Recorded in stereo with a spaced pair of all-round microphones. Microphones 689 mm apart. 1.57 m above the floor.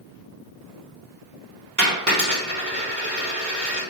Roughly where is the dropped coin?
Right.